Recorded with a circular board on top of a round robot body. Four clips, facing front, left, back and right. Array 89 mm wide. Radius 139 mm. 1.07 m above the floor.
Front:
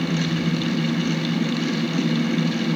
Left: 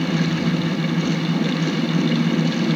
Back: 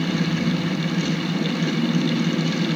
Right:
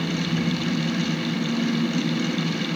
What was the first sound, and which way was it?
Only background noise.